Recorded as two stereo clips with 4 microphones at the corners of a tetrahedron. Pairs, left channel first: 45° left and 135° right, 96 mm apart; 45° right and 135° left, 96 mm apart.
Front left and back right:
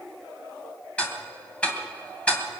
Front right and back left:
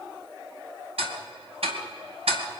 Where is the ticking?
125° left, 2 m.